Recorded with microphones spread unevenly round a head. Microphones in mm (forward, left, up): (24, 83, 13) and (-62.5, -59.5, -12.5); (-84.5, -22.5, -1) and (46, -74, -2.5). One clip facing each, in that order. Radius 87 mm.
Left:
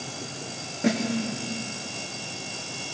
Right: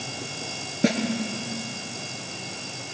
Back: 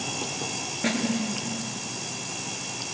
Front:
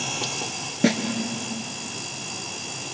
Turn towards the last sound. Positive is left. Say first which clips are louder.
# right 1 dB, front 7 dB
turn(degrees=-65)